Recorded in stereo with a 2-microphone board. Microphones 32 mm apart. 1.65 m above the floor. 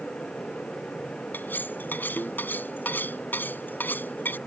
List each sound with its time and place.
1.3 s cutlery clinking: 85° left